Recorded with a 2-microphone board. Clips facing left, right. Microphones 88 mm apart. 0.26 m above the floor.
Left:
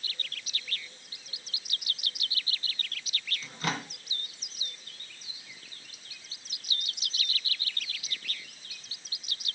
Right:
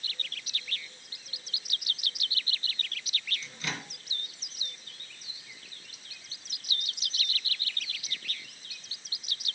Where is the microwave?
50° left (ahead or behind), 1.9 m.